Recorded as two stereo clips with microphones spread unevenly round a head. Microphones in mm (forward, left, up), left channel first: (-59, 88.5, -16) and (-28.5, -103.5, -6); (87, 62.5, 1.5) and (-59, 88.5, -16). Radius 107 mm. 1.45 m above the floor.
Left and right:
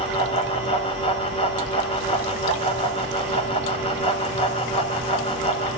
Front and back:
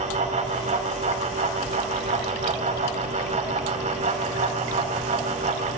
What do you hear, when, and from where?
0.0 s a fan: 150° left, 1.4 m